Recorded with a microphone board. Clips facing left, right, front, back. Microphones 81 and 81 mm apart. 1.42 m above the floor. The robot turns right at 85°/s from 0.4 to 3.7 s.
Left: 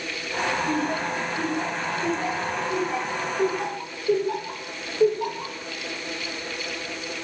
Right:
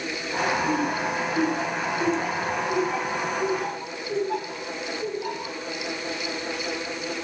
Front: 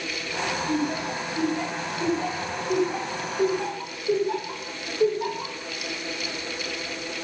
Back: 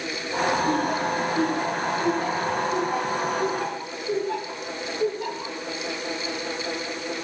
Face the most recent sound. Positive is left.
turn(degrees=75)